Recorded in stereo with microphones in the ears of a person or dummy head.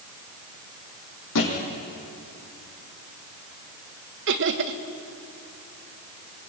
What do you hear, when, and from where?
1.4 s a thud: 75° left (ahead or behind), 5 m
4.3 s laughter: 60° right (ahead or behind), 1.3 m